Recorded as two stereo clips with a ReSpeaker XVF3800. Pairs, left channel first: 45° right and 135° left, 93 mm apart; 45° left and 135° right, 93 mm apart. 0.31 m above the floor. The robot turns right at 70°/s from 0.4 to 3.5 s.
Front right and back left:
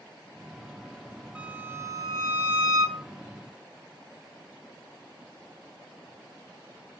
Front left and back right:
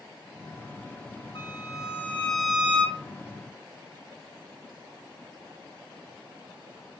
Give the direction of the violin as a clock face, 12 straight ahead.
10 o'clock.